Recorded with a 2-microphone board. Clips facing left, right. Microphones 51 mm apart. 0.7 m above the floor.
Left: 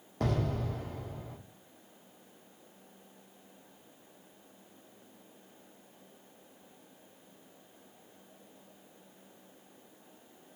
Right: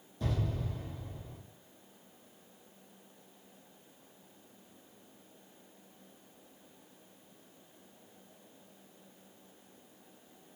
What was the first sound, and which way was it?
An explosion, 65° left (ahead or behind).